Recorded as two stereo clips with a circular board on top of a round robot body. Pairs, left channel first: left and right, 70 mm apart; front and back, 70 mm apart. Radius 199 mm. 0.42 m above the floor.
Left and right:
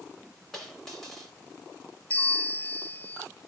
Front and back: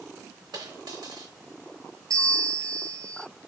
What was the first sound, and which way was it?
A dropped coin, 175° left.